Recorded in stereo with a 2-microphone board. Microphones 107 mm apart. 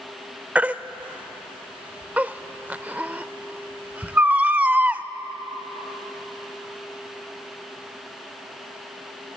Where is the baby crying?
15° right (ahead or behind), 0.6 m.